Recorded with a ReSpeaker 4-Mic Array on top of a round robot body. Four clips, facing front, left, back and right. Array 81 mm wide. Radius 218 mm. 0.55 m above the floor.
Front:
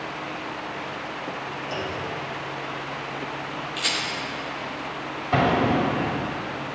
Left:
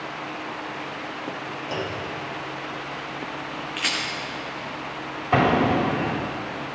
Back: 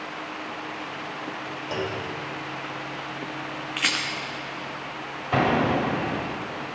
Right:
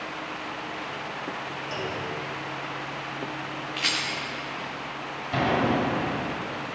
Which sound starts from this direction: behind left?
A clunk, at 1.7 s.